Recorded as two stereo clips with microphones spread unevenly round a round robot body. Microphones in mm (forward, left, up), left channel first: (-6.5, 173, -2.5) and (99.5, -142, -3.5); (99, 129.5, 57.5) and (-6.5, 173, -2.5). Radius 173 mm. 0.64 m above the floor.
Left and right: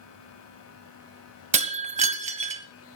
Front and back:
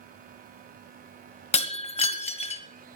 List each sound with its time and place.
1.5 s breaking glass: straight ahead, 1.4 m